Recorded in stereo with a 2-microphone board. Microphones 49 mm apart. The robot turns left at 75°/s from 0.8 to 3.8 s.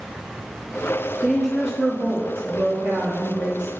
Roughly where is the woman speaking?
Ahead.